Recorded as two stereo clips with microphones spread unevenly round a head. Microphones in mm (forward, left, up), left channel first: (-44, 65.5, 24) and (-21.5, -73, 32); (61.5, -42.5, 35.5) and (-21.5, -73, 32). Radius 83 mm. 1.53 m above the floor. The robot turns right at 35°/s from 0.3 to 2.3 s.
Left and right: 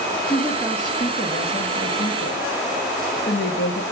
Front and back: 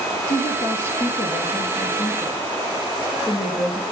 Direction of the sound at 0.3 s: 15° left.